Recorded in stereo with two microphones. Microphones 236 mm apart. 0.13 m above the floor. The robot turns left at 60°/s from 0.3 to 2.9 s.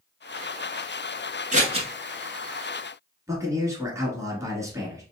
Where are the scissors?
30° right (ahead or behind), 1.0 m; by 1.9 s 20° right (ahead or behind), 1.0 m.